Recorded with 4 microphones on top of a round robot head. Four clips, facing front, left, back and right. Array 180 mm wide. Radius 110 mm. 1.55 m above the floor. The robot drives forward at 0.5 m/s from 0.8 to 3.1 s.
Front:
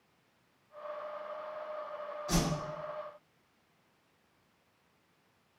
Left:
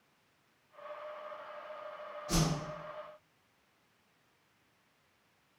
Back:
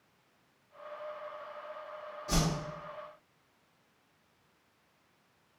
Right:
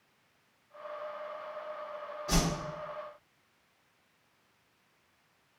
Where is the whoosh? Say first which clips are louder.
Right 2 dB, even; 105° right, 1.4 m; by 2.5 s 110° right, 1.4 m.